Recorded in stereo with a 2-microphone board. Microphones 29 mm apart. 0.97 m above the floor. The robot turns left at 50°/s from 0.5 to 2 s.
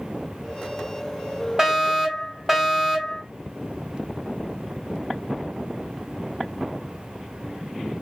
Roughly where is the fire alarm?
Right.